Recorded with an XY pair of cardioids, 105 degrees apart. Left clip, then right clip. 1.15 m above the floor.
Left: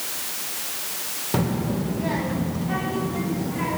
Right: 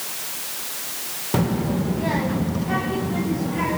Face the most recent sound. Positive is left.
turn(degrees=-35)